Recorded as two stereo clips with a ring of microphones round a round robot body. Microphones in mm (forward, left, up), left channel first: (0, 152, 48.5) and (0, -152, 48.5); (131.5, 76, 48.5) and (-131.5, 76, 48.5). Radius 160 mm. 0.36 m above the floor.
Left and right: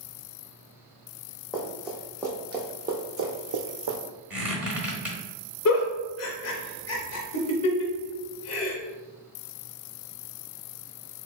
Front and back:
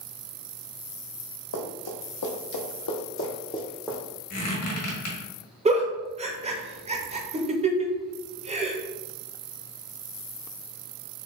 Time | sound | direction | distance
1.5 | running footsteps | straight ahead | 1.1 m
4.3 | a squeak | 5° right | 1.3 m
5.7 | a giggle | 115° left | 0.8 m